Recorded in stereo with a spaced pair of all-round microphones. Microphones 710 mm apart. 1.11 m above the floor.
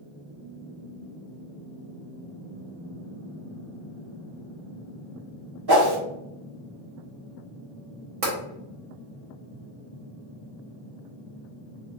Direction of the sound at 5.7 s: 35° right (ahead or behind).